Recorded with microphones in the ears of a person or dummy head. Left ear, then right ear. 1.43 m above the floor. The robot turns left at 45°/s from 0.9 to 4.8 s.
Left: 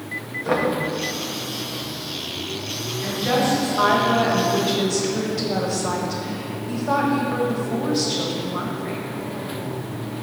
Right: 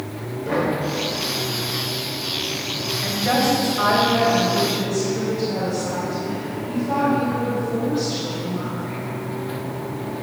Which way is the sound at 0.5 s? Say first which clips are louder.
Left 1 dB; 45° left (ahead or behind).